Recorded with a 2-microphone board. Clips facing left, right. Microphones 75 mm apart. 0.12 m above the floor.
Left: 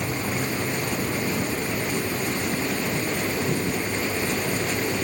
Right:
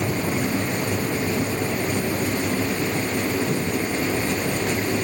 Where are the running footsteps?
I don't hear running footsteps.